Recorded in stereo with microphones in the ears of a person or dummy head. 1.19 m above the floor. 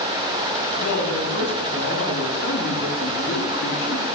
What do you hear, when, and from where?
0.8 s a woman speaking: 80° left, 8 m